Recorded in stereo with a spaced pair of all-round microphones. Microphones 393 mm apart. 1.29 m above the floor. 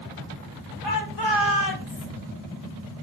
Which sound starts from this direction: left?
A shout, at 0.8 s.